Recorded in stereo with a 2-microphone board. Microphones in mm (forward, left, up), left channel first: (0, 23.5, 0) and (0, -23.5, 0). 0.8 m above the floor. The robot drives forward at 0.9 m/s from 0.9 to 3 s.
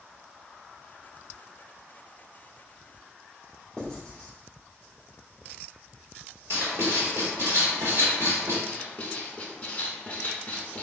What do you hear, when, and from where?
3.8 s writing: 15° left (ahead or behind), 2.0 m
6.5 s writing: 60° right (ahead or behind), 1.2 m
8.7 s writing: 25° left (ahead or behind), 0.7 m